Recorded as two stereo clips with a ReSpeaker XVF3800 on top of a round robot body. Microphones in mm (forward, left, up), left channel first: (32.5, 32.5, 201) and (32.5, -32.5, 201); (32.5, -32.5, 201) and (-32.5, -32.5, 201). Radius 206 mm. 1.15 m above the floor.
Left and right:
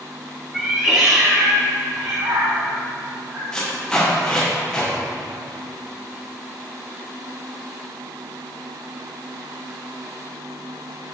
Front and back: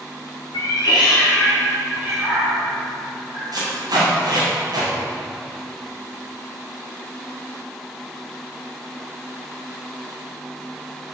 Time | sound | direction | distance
0.5 | a cat meowing | 5° right | 1.1 m
3.5 | tape being pulled | 170° left | 2.5 m